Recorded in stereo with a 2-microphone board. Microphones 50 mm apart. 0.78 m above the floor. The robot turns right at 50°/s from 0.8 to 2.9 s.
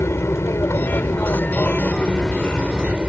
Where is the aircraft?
100° left; by 3.1 s 155° right.